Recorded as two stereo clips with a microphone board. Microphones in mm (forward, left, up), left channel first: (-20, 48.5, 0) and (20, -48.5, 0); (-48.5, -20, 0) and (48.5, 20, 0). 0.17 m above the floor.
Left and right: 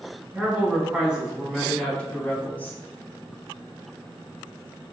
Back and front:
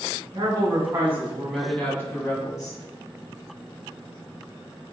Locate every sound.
0.3 s a woman speaking: straight ahead, 1.2 m; by 2.8 s straight behind, 1.3 m